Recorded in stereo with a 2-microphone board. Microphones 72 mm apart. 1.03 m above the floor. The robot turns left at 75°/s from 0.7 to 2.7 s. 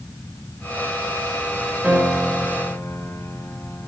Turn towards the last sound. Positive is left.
turn(degrees=135)